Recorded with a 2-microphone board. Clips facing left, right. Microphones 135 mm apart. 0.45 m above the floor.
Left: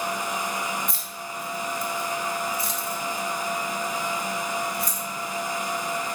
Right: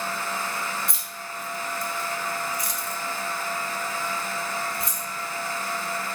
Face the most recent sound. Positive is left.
turn(degrees=-25)  # may be behind; listen again after turning